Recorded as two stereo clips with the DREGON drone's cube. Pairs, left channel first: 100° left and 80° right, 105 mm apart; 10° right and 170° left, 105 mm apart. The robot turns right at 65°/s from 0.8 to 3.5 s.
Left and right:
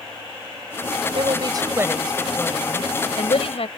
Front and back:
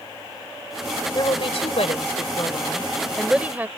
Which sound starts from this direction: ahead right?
A woman speaking, at 1.1 s.